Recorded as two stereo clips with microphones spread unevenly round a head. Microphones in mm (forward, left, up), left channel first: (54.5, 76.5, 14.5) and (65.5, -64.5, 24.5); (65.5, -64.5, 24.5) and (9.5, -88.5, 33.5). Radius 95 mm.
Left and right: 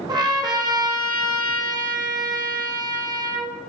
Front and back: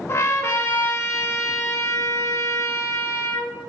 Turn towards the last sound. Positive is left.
turn(degrees=-25)